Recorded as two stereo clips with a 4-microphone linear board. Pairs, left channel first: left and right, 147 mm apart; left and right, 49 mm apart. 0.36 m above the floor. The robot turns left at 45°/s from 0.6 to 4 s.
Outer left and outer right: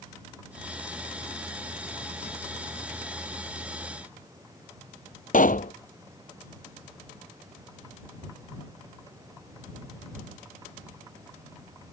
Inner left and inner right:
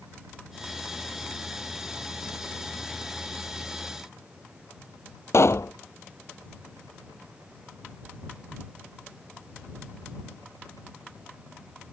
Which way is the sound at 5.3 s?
70° left (ahead or behind).